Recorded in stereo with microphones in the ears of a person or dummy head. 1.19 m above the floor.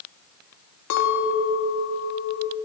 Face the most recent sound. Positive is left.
turn(degrees=75)  # may be behind; listen again after turning